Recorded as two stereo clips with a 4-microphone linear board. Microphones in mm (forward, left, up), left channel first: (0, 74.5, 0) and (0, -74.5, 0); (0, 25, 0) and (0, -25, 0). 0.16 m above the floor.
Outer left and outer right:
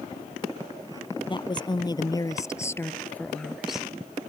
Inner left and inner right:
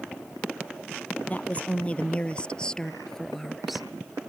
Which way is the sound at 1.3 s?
30° left (ahead or behind).